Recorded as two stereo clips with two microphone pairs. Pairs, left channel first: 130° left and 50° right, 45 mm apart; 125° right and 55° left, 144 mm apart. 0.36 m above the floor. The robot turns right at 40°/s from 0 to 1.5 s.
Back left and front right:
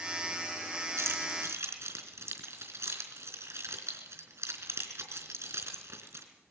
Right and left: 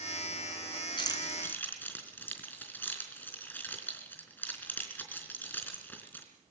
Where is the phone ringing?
I don't hear a phone ringing.